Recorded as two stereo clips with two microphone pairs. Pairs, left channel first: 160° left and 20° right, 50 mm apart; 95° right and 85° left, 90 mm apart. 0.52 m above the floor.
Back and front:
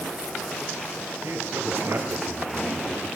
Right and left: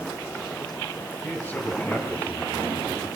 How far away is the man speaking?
About 5.5 m.